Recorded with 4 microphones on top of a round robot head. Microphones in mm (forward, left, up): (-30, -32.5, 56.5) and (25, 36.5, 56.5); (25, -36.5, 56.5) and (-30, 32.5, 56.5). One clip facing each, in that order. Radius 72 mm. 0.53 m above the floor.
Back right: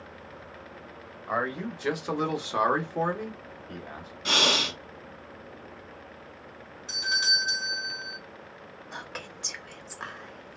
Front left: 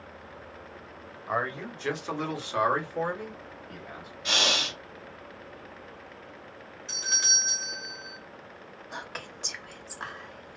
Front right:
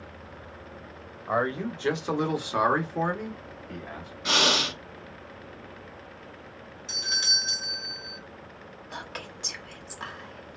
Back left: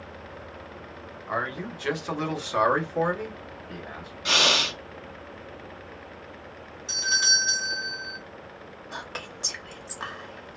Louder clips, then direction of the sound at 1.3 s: Back right 1 dB, front right 4 dB; 40° right.